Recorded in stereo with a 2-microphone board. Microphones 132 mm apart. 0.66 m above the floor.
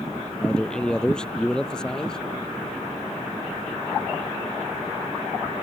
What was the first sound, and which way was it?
A man speaking, 5° left (ahead or behind).